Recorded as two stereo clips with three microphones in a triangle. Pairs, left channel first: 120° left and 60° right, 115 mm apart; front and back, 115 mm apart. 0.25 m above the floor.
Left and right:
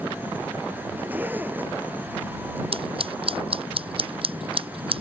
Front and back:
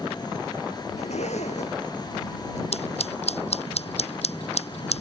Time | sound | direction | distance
1.0 | a zipper | 15° left | ?
2.7 | scissors | 25° right | ?